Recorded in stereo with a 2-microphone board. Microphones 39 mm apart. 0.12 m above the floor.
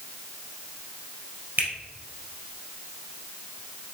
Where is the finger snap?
55° right (ahead or behind), 2 m.